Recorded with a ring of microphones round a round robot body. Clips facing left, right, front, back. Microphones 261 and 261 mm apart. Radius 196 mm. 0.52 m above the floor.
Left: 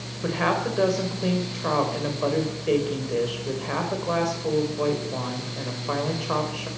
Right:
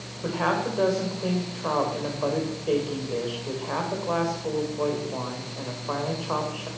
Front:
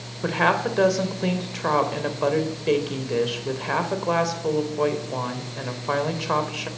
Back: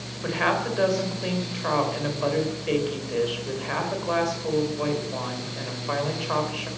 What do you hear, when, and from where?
0.2 s a woman speaking: 20° left, 3 m